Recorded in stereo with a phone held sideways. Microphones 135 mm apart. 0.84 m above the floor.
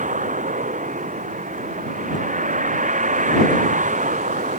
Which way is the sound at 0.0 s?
75° right (ahead or behind).